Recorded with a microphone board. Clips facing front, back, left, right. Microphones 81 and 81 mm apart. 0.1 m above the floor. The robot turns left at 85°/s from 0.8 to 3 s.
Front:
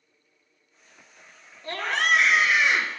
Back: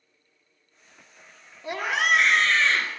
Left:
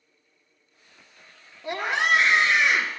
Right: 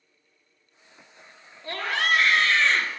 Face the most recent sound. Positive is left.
turn(degrees=20)